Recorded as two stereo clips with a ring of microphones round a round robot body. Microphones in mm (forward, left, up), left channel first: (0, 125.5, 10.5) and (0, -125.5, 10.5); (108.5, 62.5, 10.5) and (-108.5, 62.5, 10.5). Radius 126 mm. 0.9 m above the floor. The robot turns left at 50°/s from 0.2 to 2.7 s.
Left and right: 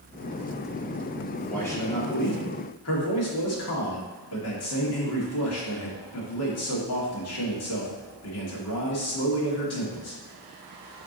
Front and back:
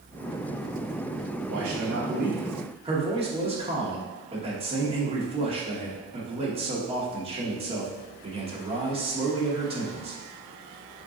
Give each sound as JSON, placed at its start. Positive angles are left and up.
{"t": 1.5, "sound": "a man speaking", "azimuth_deg": 175, "distance_m": 2.5}